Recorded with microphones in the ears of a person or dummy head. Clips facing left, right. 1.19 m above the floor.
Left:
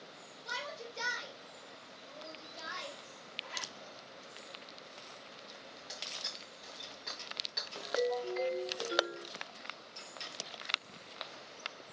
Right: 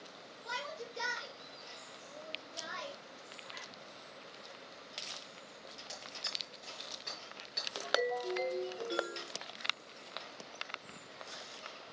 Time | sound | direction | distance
0.5 | a shout | 15° right (ahead or behind) | 4.5 m
3.4 | a zipper | 60° left (ahead or behind) | 1.1 m
5.9 | breaking glass | 5° right (ahead or behind) | 4.5 m
7.8 | a ringtone | 20° right (ahead or behind) | 8 m